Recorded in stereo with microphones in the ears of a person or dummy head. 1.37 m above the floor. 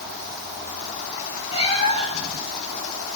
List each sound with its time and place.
1.5 s a cat meowing: 30° left (ahead or behind), 4 m